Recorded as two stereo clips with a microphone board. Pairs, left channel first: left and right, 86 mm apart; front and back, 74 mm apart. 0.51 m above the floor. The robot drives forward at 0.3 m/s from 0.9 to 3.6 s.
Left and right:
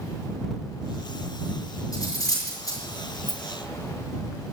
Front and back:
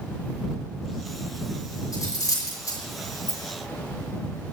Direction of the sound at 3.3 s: 175° left.